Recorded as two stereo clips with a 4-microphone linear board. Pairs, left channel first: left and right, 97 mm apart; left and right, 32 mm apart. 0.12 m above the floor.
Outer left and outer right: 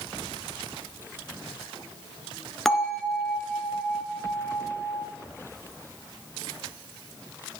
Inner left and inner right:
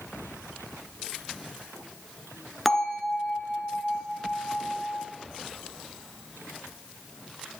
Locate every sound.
2.6 s a bell: 5° left (ahead or behind), 1.3 m